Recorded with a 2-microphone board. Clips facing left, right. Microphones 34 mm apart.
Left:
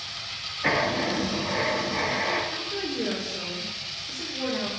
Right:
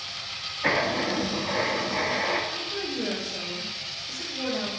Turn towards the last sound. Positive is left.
turn(degrees=25)  # may be behind; listen again after turning